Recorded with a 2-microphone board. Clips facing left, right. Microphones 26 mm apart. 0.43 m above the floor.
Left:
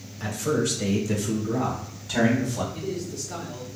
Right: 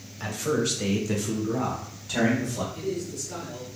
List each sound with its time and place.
0.2 s a man speaking: 20° right (ahead or behind), 1.2 m; by 2.6 s centre (ahead or behind), 1.6 m
2.7 s a man speaking: 20° left (ahead or behind), 1.1 m